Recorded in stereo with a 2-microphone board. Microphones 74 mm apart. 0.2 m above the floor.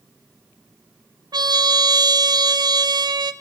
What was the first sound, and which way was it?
A trumpet, 65° right (ahead or behind).